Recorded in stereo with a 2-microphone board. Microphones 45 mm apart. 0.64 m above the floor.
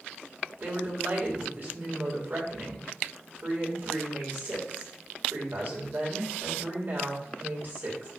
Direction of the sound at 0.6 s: 45° right (ahead or behind).